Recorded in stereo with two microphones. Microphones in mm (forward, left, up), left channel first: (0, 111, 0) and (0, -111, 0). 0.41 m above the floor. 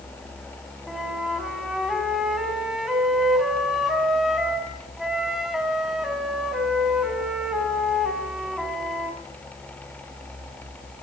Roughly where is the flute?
Centre.